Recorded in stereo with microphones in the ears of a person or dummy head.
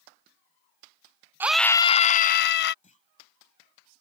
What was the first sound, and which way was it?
A scream, 10° right (ahead or behind).